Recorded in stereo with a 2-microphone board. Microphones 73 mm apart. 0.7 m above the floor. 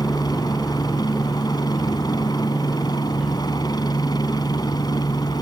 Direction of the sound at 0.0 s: 65° left (ahead or behind).